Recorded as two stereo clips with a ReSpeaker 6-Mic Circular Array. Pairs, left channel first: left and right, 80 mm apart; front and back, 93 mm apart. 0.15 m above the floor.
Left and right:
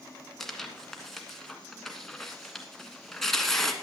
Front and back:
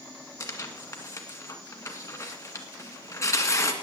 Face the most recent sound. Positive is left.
turn(degrees=5)